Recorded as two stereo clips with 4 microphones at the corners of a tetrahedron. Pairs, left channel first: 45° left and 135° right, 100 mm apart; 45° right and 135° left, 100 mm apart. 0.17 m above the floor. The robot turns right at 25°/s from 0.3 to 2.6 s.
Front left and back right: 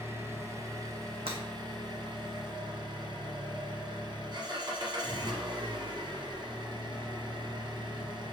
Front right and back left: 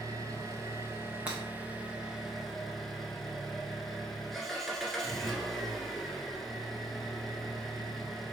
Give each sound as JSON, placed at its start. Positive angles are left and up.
{"t": 0.0, "sound": "an engine running", "azimuth_deg": 170, "distance_m": 1.0}
{"t": 1.3, "sound": "breaking glass", "azimuth_deg": -150, "distance_m": 1.2}